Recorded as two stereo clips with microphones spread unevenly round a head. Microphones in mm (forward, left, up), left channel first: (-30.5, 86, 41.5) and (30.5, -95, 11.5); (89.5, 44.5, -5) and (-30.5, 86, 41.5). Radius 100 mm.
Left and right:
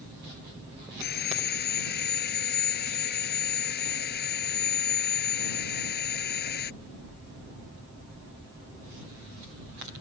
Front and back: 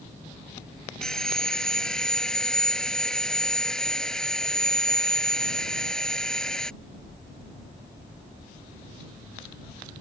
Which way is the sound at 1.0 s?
70° left.